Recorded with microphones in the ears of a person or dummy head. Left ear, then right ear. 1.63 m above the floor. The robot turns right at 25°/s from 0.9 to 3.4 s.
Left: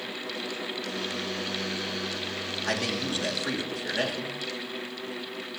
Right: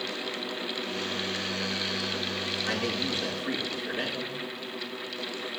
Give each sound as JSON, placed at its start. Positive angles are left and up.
{"t": 2.7, "sound": "a man speaking", "side_deg": 85, "distance_m": 3.5}